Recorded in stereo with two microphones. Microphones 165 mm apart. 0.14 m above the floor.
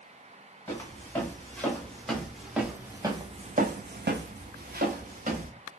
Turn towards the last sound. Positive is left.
turn(degrees=-50)  # may be behind; listen again after turning